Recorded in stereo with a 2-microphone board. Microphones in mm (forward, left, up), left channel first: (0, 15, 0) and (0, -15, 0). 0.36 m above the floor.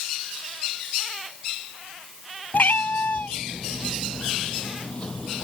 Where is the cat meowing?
80° left; by 5.4 s 30° left (ahead or behind).